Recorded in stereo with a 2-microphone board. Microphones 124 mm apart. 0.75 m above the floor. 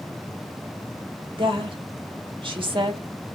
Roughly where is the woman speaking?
Right.